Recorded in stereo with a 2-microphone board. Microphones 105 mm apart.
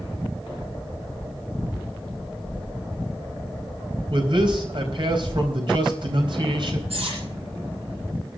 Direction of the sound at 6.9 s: 70° right (ahead or behind).